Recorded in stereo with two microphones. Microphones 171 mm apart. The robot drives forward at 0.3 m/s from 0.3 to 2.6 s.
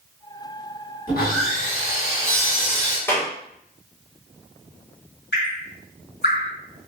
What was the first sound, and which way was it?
Sawing, 65° left (ahead or behind).